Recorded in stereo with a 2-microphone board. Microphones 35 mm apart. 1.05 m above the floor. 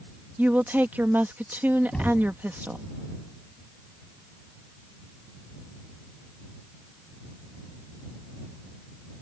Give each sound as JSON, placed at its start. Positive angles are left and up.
{"t": 0.4, "sound": "a woman speaking", "side_deg": -55}
{"t": 1.9, "sound": "knocking", "side_deg": 25}